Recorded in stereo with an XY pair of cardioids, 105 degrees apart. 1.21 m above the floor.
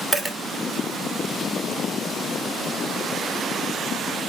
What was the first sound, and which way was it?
A dropped coin, 10° left.